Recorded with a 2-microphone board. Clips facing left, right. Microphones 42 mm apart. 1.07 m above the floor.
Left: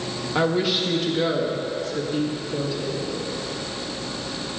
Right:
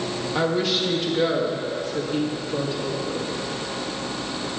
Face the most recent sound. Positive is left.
turn(degrees=-45)  # may be behind; listen again after turning